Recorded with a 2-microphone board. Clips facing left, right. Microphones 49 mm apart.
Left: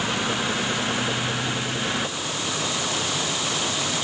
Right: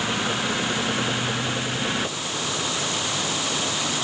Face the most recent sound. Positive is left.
No sound to turn to.